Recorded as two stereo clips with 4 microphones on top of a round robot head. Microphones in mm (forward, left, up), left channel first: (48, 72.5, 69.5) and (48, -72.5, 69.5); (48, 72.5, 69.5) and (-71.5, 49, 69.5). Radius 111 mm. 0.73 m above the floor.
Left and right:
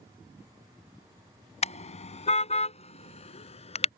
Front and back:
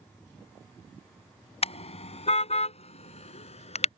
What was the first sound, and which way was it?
A car horn, 45° left.